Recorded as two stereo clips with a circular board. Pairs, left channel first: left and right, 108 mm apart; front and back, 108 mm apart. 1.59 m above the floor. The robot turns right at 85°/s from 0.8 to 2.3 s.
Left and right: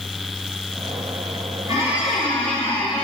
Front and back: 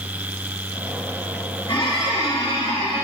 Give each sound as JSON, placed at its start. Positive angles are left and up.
{"t": 1.7, "sound": "a squeak", "azimuth_deg": -40, "distance_m": 5.0}